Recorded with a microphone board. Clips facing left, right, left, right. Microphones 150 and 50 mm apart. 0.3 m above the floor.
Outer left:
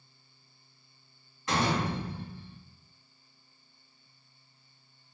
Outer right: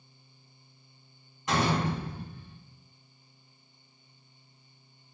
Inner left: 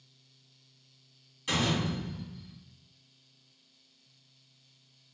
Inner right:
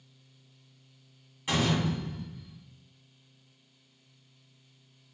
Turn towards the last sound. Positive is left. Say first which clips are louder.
# outer right 1 dB, inner right 2 dB
turn(degrees=-20)  # may be behind; listen again after turning